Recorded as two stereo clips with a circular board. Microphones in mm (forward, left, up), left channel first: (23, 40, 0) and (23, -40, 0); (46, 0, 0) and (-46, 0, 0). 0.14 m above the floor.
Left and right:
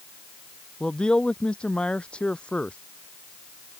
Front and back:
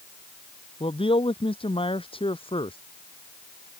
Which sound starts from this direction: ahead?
A man speaking, at 0.8 s.